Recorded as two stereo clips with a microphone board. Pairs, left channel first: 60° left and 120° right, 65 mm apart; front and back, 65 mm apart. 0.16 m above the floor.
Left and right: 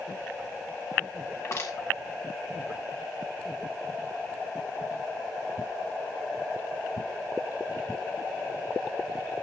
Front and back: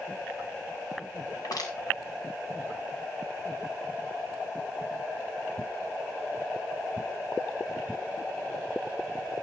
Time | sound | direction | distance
1.3 | crushing | 15° left | 6 m